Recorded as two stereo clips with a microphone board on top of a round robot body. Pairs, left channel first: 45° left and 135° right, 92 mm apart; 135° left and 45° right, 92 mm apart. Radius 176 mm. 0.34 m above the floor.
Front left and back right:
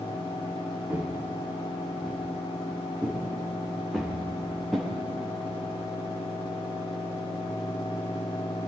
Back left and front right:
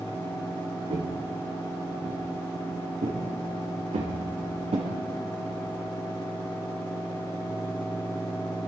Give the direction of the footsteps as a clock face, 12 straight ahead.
2 o'clock.